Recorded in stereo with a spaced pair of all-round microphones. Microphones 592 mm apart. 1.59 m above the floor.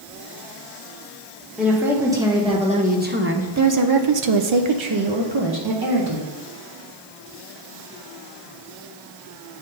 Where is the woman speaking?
Centre (ahead or behind), 1.6 m; by 6.3 s 35° right (ahead or behind), 1.2 m.